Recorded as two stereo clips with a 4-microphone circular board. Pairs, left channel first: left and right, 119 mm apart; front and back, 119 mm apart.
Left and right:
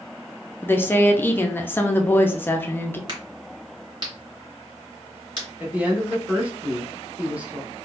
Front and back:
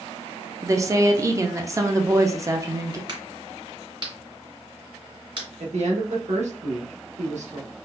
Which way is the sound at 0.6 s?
145° left.